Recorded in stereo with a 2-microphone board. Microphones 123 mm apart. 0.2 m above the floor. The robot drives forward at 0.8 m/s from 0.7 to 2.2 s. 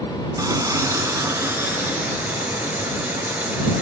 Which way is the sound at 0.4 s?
30° right (ahead or behind).